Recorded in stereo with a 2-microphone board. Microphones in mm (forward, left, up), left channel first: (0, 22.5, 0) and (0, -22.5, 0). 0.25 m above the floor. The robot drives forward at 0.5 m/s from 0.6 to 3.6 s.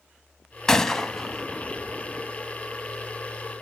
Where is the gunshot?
15° left (ahead or behind), 0.8 m; by 2.3 s 5° left (ahead or behind), 1.5 m.